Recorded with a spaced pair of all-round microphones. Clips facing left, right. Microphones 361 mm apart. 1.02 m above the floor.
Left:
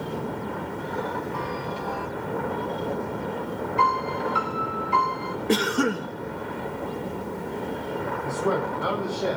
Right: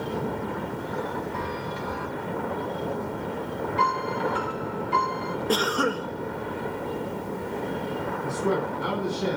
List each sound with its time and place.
1.3 s a chime: 30° right (ahead or behind), 5.5 m
3.8 s a piano: 25° right (ahead or behind), 4 m
5.5 s a cough: 35° left (ahead or behind), 1.2 m
8.2 s a man speaking: 30° right (ahead or behind), 6.5 m